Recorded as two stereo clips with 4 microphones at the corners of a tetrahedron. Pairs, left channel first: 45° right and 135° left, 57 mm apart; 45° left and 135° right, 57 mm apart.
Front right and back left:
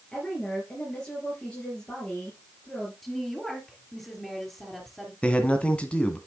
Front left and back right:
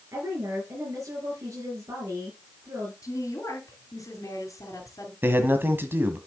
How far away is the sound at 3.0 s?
About 3.5 m.